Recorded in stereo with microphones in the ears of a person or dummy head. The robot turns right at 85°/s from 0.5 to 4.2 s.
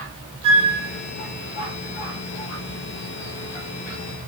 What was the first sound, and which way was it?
A flute, 35° right (ahead or behind).